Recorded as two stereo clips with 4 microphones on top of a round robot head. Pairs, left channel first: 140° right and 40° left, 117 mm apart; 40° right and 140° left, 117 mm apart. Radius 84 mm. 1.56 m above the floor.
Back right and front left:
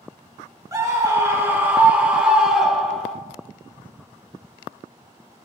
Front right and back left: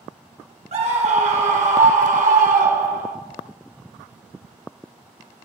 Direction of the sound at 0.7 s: 105° left.